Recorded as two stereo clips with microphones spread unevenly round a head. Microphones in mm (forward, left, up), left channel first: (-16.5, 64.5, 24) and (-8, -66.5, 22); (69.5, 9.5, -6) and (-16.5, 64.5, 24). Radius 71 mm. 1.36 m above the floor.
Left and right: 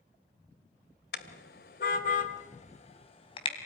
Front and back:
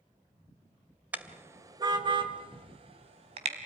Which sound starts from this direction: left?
A car horn, at 1.1 s.